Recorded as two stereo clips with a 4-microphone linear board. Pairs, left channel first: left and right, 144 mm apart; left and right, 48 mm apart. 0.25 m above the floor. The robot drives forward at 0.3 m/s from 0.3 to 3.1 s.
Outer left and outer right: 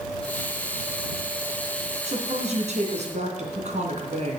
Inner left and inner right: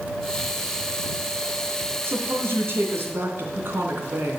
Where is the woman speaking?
50° right (ahead or behind), 3 m; by 4.4 s 55° right (ahead or behind), 3 m.